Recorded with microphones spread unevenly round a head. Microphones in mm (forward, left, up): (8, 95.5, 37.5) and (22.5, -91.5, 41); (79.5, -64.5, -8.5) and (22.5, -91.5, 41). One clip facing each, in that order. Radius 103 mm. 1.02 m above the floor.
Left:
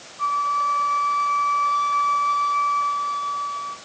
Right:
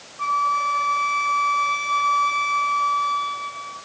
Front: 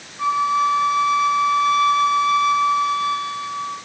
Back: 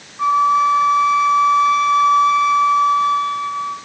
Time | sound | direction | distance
0.2 | a flute | 135° right | 3 m